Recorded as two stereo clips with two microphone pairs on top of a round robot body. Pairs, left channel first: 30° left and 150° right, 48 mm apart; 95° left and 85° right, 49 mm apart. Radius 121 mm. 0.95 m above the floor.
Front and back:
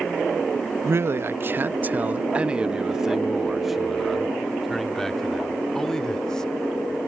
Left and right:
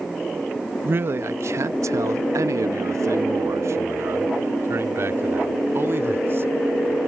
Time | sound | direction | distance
0.8 | a man speaking | 130° right | ?